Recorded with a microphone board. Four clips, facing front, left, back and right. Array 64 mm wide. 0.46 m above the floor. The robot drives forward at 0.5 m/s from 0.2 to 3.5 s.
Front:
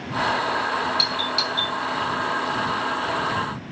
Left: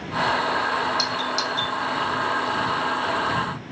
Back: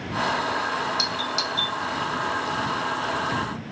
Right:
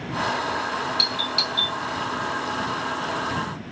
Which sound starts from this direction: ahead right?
A doorbell, at 1.0 s.